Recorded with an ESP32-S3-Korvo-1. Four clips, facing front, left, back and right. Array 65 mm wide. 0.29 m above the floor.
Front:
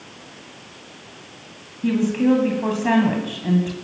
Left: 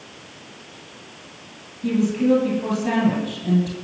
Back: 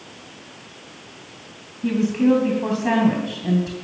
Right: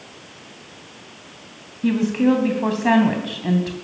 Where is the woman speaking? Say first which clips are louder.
Right 1 dB, even; 80° right, 2.5 m.